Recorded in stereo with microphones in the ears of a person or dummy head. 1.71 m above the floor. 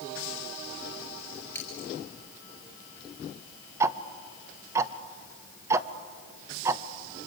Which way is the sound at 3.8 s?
20° right (ahead or behind).